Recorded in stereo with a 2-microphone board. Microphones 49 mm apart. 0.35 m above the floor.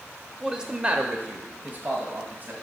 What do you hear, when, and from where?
0.4 s a man speaking: 10° right (ahead or behind), 0.9 m; by 2.5 s 35° right (ahead or behind), 1.9 m